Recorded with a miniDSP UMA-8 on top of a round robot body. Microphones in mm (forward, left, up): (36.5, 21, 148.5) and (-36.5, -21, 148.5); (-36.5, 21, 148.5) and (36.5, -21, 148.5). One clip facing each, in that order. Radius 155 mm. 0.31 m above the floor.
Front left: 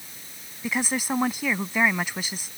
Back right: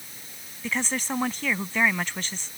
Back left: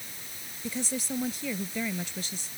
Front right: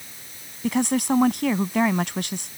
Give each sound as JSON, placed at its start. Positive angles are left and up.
{"t": 0.6, "sound": "a woman speaking", "azimuth_deg": -50}